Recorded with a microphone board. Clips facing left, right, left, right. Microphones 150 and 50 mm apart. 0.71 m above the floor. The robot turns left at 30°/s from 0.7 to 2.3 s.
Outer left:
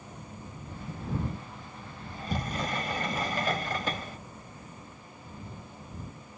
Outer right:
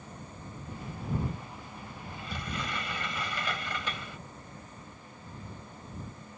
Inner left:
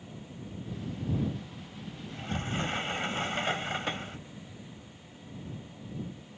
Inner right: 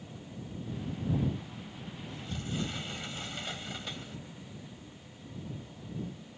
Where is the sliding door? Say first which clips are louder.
Outer left 6 dB, inner left 5 dB; 40° left (ahead or behind); by 4.2 s 45° left (ahead or behind).